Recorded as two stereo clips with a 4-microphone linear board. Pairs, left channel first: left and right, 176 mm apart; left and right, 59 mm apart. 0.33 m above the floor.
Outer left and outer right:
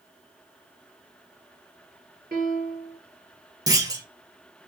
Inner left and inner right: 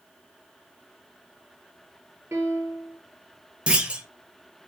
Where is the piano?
50° right (ahead or behind), 1.2 m.